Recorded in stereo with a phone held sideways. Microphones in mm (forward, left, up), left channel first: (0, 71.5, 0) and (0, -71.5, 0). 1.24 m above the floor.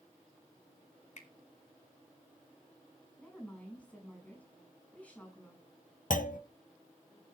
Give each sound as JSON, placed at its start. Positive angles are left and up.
{"t": 1.2, "sound": "a finger snap", "side_deg": 55, "distance_m": 2.5}
{"t": 3.2, "sound": "a woman speaking", "side_deg": 10, "distance_m": 8.5}
{"t": 6.1, "sound": "a clunk", "side_deg": 70, "distance_m": 1.2}